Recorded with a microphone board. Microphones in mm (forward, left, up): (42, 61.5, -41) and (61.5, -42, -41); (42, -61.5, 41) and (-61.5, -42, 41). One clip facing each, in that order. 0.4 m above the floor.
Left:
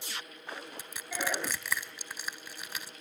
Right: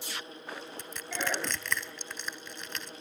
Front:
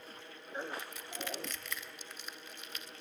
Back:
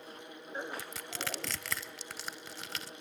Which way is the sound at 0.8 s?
Straight behind.